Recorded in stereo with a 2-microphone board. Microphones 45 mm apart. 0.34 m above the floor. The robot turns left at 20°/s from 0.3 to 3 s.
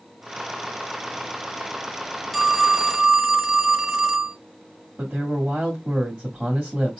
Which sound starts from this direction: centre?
A phone ringing, at 2.3 s.